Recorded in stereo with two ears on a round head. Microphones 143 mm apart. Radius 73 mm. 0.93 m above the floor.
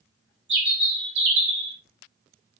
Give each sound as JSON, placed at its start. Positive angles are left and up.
{"t": 0.5, "sound": "a bird", "side_deg": -80, "distance_m": 1.4}